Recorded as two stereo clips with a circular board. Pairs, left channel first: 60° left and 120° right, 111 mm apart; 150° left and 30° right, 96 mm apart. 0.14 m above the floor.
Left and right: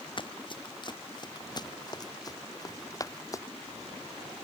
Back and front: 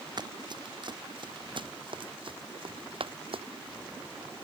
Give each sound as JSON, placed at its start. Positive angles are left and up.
{"t": 0.2, "sound": "running footsteps", "azimuth_deg": 15}